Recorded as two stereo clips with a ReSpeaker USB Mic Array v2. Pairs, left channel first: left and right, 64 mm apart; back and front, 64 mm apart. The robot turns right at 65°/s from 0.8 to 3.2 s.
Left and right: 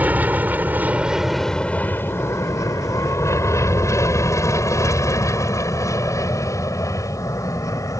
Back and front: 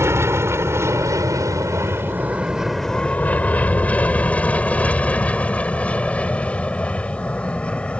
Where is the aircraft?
30° right; by 8.0 s 110° left.